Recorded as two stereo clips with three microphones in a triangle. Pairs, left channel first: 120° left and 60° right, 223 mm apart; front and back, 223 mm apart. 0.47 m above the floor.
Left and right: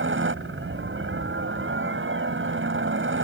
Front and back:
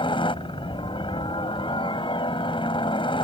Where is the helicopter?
65° right.